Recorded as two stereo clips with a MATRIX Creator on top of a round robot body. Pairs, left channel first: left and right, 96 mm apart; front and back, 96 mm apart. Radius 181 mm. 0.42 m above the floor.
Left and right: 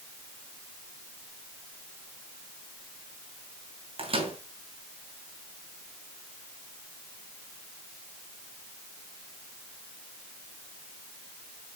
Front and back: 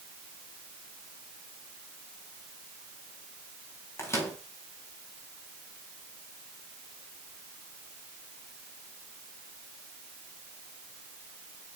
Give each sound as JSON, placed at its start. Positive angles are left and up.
{"t": 4.0, "sound": "a microwave", "azimuth_deg": -65, "distance_m": 6.0}